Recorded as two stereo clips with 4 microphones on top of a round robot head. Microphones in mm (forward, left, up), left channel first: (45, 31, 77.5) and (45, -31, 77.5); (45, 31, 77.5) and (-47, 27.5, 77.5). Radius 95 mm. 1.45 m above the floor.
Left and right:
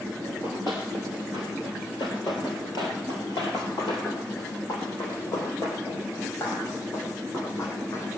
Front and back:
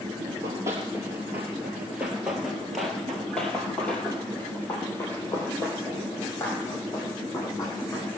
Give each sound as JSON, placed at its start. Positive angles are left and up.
{"t": 0.2, "sound": "running footsteps", "azimuth_deg": 135, "distance_m": 2.5}